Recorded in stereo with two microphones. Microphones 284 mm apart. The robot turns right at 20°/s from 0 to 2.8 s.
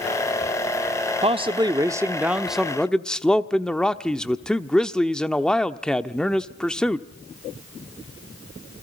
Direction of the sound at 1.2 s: 30° right.